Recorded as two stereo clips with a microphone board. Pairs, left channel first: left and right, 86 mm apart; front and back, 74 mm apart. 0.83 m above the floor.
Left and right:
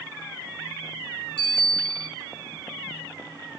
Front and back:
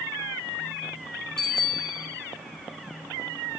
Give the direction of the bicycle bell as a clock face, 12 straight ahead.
9 o'clock.